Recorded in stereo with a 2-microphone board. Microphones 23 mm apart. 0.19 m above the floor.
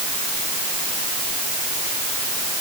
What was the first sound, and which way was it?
Only background noise.